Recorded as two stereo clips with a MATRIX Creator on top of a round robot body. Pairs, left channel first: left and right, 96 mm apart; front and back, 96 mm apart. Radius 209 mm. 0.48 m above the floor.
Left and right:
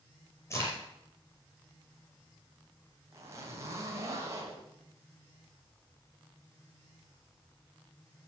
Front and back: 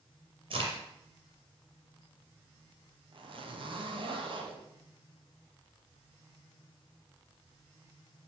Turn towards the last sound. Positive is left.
turn(degrees=-150)